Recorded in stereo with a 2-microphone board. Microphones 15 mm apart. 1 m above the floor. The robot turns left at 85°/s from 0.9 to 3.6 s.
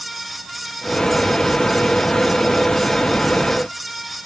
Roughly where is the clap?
No clap in this recording.